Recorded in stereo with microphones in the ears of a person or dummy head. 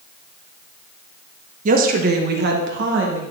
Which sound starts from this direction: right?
A woman speaking, at 1.6 s.